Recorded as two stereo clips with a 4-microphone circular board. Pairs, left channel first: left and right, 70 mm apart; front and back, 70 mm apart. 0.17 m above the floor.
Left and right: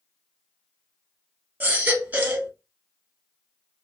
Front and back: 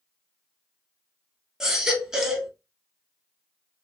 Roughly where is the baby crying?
Right.